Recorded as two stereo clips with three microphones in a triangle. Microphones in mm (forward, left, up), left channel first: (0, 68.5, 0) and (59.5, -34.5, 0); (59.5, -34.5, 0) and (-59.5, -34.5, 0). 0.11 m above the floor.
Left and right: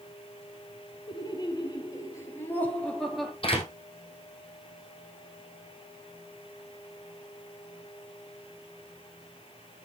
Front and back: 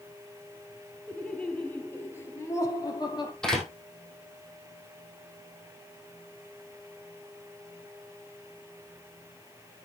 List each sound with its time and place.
1.1 s laughter: 80° left, 3 m; by 3.3 s 30° left, 2.5 m
3.4 s a door slam: 85° left, 3.5 m